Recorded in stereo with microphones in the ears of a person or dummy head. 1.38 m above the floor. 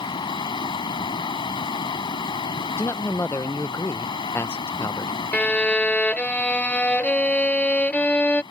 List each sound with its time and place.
0.0 s running water: 20° left (ahead or behind)
2.8 s a man speaking: 15° left (ahead or behind)
5.3 s a violin: 5° left (ahead or behind)